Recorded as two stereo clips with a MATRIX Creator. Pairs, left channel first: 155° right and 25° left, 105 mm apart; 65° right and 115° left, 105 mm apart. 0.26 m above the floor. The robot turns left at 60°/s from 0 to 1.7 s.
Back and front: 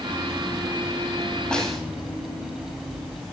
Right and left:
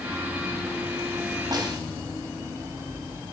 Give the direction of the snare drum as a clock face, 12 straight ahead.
8 o'clock.